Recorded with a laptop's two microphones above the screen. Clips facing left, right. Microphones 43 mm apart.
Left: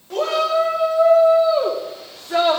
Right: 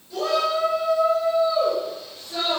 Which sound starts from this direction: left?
A shout, at 0.1 s.